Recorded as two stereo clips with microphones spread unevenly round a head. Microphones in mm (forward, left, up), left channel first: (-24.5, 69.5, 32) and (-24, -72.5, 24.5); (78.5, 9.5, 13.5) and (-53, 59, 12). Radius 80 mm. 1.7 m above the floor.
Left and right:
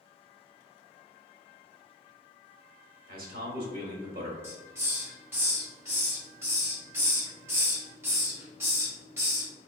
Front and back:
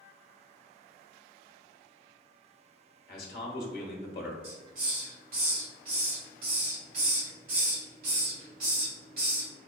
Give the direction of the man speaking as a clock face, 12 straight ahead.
2 o'clock.